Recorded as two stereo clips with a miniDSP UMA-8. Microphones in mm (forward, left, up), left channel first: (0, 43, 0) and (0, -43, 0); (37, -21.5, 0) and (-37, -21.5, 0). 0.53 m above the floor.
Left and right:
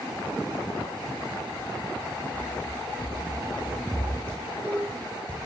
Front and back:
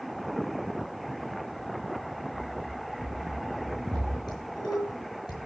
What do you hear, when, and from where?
2.3 s running footsteps: 150° left, 2.5 m; by 4.2 s 175° left, 2.5 m
4.3 s dishes clattering: 15° left, 6.5 m